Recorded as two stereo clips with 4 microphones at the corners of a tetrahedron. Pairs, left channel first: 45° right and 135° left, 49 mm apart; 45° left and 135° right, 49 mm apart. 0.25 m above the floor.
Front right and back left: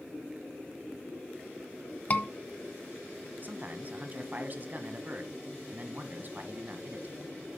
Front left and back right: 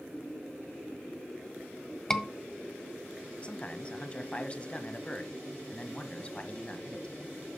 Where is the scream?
30° right, 1.4 m.